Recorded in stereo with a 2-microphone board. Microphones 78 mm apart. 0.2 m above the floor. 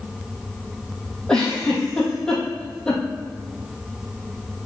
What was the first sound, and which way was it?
A giggle, 10° left (ahead or behind).